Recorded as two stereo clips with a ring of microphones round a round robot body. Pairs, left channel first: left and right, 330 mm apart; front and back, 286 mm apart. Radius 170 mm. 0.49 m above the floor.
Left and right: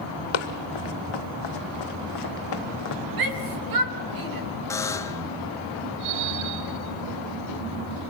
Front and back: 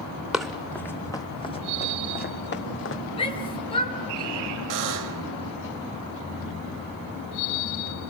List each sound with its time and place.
0.3 s running footsteps: 90° left, 2 m; by 3.0 s 45° left, 1.8 m
3.2 s a shout: 75° right, 3.5 m
4.7 s a buzzer: 170° left, 1.3 m